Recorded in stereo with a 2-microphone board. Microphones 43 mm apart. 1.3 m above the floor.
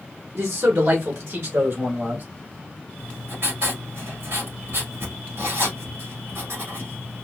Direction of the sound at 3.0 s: 65° right (ahead or behind).